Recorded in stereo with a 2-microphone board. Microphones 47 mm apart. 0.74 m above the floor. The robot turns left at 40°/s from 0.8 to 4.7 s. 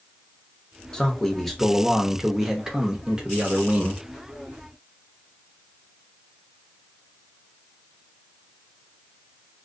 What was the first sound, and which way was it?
A man speaking, 15° left (ahead or behind).